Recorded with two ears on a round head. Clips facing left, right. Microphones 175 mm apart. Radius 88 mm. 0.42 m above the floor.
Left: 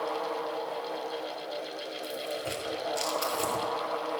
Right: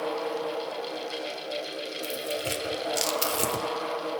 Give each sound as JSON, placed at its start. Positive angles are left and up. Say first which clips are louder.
{"t": 2.0, "sound": "tearing paper", "louder": "right 3 dB", "side_deg": -35, "distance_m": 0.9}